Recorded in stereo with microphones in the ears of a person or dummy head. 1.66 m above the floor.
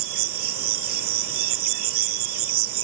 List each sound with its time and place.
0.0 s an insect: 45° right (ahead or behind)